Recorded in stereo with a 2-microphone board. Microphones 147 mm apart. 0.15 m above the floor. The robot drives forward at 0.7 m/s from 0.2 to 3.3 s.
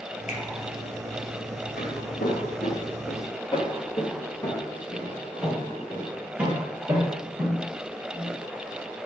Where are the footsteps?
90° left, 3.5 m; by 8.4 s 25° right (ahead or behind), 7 m.